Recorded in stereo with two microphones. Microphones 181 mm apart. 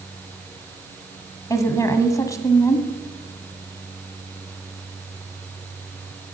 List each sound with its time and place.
1.5 s a woman speaking: 15° left (ahead or behind), 1.2 m